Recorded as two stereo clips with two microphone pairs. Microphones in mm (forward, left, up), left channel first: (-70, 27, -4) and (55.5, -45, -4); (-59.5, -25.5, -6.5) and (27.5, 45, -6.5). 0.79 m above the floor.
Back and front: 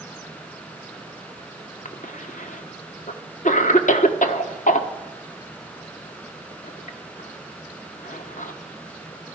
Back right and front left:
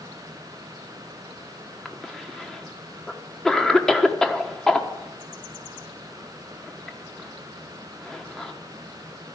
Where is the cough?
135° left, 1.3 m.